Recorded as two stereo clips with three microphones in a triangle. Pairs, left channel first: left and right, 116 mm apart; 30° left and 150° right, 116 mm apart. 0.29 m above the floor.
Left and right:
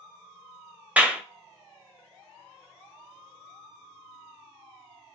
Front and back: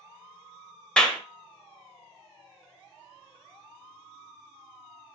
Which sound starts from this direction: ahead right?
A clap, at 1.0 s.